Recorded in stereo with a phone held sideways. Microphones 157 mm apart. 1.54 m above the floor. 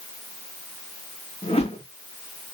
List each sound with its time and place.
1.4 s a whoosh: 40° left (ahead or behind), 2.5 m